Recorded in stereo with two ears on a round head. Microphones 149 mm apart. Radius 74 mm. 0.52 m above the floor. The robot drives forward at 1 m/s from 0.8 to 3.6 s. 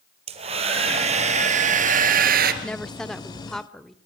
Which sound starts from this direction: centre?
A woman speaking, at 2.6 s.